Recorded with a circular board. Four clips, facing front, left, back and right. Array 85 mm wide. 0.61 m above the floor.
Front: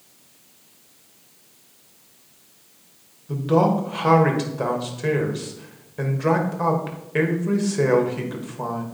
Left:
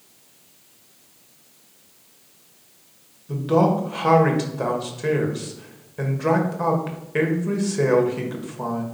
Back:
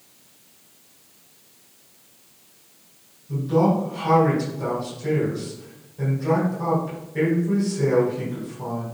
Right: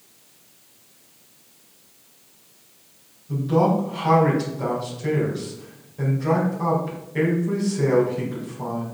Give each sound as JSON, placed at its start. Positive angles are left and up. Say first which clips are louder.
{"t": 3.3, "sound": "a man speaking", "louder": "left 1 dB, front 1 dB", "azimuth_deg": 40, "distance_m": 2.0}